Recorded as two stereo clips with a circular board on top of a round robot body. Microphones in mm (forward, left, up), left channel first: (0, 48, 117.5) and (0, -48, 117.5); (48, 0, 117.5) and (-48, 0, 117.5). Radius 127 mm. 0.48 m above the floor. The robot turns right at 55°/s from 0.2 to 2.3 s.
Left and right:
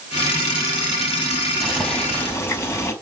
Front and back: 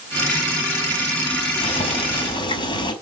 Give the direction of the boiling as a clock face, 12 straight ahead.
12 o'clock.